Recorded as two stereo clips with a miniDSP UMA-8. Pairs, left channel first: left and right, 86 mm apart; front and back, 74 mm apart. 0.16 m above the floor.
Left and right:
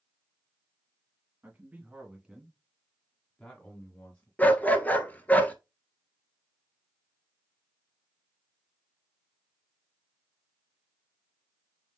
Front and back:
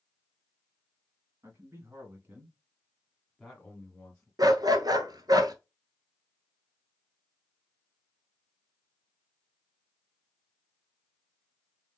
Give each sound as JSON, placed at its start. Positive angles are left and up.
{"t": 1.4, "sound": "a man speaking", "azimuth_deg": -150, "distance_m": 1.8}
{"t": 4.4, "sound": "a dog barking", "azimuth_deg": 160, "distance_m": 0.7}